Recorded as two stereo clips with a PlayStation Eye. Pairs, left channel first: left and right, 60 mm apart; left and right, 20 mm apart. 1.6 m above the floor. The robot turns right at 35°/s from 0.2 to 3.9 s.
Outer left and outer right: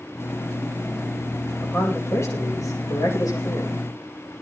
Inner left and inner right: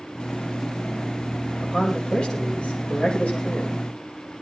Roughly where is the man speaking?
Ahead left.